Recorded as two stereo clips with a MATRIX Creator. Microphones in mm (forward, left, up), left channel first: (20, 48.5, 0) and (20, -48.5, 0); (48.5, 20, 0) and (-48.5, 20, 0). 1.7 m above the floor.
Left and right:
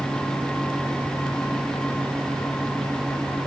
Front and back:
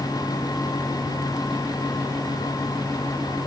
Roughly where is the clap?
I don't hear a clap.